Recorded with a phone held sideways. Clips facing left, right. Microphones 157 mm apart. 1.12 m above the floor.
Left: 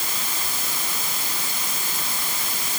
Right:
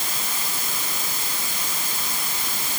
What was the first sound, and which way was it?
Only background noise.